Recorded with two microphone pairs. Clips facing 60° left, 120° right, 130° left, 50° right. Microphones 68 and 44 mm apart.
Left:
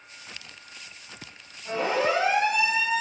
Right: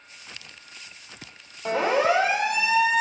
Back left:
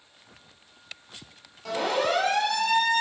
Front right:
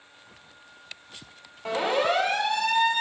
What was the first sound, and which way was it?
A siren, 110° right.